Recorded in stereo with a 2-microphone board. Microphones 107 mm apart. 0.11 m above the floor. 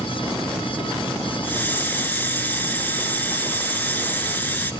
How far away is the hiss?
About 0.7 m.